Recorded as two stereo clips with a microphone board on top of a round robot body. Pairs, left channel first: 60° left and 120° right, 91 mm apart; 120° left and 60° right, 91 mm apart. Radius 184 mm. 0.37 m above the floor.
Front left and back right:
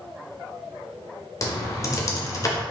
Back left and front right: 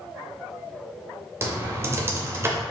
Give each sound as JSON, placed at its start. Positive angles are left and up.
{"t": 1.4, "sound": "typing on a keyboard", "azimuth_deg": 0, "distance_m": 0.7}